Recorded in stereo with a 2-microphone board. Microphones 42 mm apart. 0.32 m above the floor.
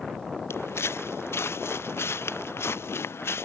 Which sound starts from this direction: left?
Footsteps, at 0.5 s.